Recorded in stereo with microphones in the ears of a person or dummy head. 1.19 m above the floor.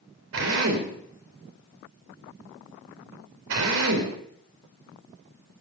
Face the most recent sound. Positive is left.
turn(degrees=-70)  # may be behind; listen again after turning